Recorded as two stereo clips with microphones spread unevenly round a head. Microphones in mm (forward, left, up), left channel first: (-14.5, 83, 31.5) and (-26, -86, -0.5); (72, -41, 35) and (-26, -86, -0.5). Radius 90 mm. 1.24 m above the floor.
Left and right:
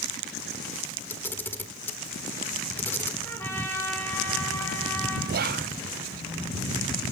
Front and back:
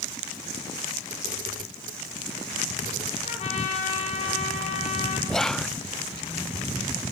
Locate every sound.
1.1 s a camera shutter: 160° left, 1.5 m
3.2 s a trumpet: 5° left, 5.5 m
5.3 s whispering: 70° right, 0.7 m